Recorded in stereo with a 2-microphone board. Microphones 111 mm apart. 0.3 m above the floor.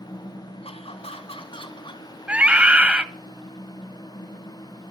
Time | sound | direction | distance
0.6 | laughter | 60° left (ahead or behind) | 2.5 m
2.3 | a scream | 10° right (ahead or behind) | 1.3 m